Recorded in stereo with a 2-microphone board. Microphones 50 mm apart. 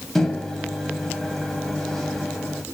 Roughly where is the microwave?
Centre.